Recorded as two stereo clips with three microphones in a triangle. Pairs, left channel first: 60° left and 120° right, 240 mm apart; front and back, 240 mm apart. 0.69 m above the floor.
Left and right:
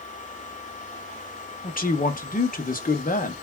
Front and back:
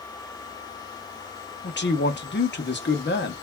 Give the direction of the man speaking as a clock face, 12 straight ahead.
11 o'clock.